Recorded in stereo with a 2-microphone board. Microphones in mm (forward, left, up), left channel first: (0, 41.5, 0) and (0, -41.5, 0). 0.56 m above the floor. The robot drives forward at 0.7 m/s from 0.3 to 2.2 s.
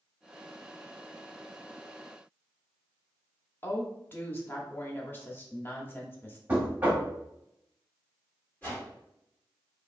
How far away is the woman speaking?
About 0.8 m.